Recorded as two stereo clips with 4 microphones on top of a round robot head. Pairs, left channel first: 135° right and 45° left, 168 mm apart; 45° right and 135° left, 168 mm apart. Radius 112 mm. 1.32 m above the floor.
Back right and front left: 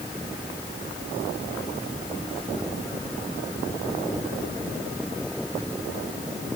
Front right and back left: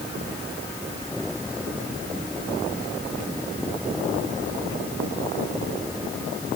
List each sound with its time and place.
Only background noise.